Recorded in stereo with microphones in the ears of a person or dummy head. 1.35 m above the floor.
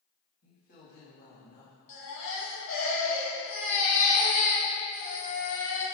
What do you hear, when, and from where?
0.4 s a woman speaking: 40° left (ahead or behind), 2 m
1.9 s a baby crying: 65° left (ahead or behind), 2.5 m